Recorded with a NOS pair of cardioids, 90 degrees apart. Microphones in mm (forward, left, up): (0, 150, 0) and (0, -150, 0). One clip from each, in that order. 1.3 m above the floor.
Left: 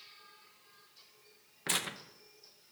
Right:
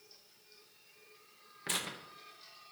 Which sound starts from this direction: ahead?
Tearing paper, at 1.7 s.